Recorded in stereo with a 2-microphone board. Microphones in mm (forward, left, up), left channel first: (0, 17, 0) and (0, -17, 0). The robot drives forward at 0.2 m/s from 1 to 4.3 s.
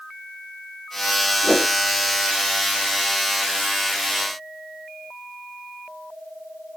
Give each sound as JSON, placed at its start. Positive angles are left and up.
{"t": 1.4, "sound": "a whoosh", "side_deg": 20, "distance_m": 1.1}